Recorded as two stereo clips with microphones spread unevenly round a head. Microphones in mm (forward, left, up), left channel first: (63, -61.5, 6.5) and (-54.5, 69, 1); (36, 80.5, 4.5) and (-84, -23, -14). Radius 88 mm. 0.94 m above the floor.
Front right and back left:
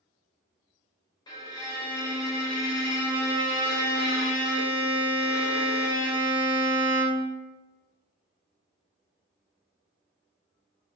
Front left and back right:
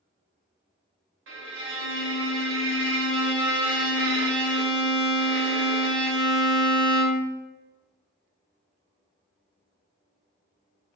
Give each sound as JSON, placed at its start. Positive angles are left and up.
{"t": 1.3, "sound": "a violin", "azimuth_deg": -115, "distance_m": 0.7}